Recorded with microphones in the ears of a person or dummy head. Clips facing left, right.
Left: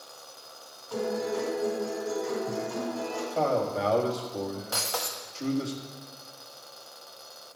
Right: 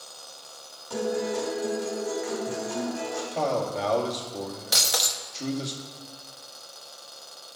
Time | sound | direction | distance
0.9 | a guitar | 65° right (ahead or behind) | 3.5 m
3.3 | a man speaking | 10° left (ahead or behind) | 1.8 m
4.7 | breaking glass | 15° right (ahead or behind) | 0.6 m